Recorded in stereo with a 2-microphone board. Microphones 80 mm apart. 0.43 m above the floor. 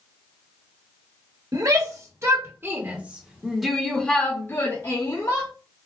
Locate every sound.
1.5 s a shout: 50° right (ahead or behind), 1.4 m; by 5.5 s 45° left (ahead or behind), 1.4 m